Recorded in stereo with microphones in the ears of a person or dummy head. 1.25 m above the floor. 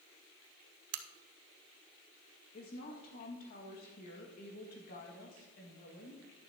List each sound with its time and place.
0.9 s a crack: 55° right (ahead or behind), 0.8 m
2.5 s a woman speaking: 50° left (ahead or behind), 2 m